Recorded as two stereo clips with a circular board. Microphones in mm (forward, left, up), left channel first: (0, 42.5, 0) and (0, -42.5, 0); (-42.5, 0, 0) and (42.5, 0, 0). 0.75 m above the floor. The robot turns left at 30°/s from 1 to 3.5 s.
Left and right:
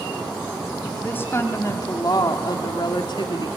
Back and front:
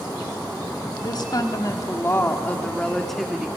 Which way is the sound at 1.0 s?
155° left.